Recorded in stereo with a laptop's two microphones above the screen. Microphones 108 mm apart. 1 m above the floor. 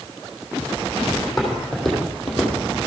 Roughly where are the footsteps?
Centre.